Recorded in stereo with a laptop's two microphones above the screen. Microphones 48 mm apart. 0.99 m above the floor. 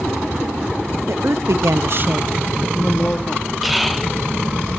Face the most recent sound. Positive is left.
turn(degrees=0)  # may be behind; listen again after turning